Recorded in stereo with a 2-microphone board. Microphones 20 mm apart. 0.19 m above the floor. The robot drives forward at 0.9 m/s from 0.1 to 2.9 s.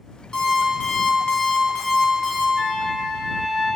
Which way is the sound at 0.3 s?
30° left (ahead or behind).